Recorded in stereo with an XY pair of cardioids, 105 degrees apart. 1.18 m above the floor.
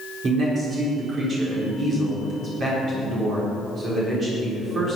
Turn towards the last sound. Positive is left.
turn(degrees=-50)